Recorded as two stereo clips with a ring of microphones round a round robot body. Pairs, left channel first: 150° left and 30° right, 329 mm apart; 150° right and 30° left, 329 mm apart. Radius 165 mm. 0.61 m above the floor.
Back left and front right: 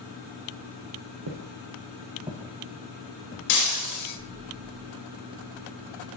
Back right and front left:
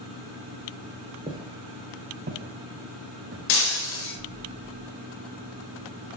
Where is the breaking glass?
170° right, 1.1 m.